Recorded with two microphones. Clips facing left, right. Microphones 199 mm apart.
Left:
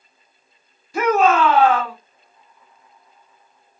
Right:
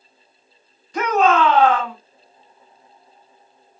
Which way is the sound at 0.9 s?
10° left (ahead or behind).